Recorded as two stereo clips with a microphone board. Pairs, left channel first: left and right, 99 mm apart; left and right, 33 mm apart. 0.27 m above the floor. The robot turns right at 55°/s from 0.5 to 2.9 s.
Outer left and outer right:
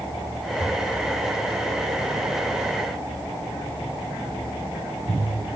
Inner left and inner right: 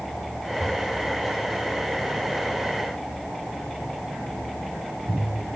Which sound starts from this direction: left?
Breathing, at 0.6 s.